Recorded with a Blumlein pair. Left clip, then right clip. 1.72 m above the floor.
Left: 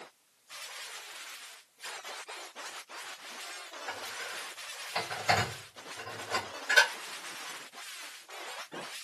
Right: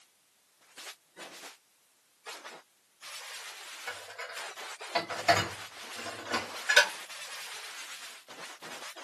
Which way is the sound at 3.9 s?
55° right.